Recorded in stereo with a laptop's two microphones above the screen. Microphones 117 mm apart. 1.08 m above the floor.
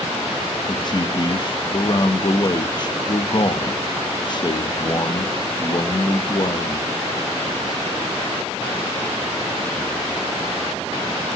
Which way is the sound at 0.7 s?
40° left (ahead or behind).